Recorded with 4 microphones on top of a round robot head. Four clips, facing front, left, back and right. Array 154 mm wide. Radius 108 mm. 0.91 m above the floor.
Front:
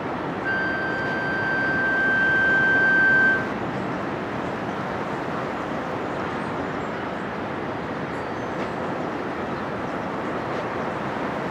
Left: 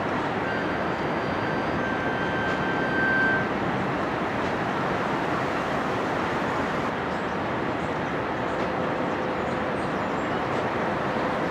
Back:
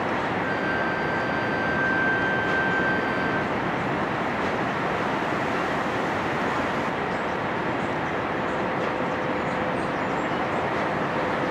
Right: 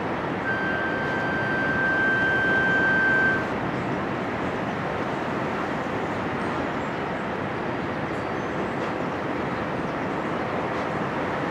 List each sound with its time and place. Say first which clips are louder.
0.4 s a flute: even, even; 10° left, 1.9 m